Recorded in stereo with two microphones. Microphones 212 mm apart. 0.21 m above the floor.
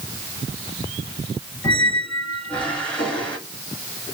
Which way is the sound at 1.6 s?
5° left (ahead or behind).